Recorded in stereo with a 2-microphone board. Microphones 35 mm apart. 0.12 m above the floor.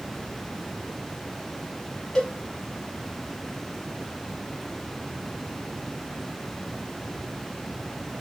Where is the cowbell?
20° left (ahead or behind), 0.9 m.